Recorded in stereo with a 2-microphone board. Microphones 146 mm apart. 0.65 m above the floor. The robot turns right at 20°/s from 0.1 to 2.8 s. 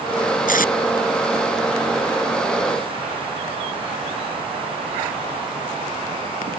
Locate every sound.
0.5 s tape being pulled: 70° left (ahead or behind); by 0.7 s 75° left (ahead or behind)